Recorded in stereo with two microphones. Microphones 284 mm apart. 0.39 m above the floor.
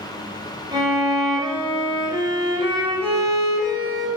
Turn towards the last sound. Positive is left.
turn(degrees=-15)  # may be behind; listen again after turning